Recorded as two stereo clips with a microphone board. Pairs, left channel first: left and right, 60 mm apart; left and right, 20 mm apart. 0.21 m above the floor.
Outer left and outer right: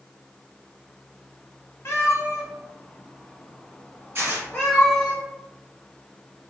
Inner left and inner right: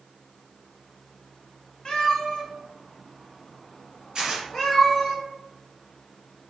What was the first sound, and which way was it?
A cat meowing, 45° left (ahead or behind).